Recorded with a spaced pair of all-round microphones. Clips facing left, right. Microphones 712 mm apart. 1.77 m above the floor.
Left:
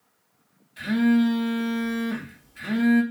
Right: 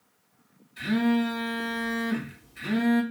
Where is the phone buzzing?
20° left (ahead or behind), 1.1 m.